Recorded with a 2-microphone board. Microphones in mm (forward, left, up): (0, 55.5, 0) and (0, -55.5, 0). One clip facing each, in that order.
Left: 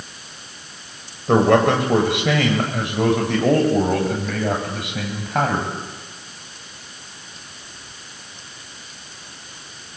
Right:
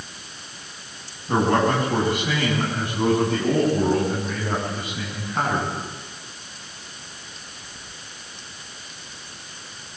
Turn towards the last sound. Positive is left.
turn(degrees=80)